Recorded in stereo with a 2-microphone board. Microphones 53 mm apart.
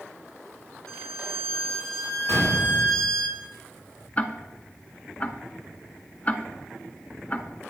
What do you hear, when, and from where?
0.9 s a violin: 10° left (ahead or behind), 1.7 m
2.3 s a gunshot: 70° left (ahead or behind), 5 m
4.2 s ticking: 30° left (ahead or behind), 0.6 m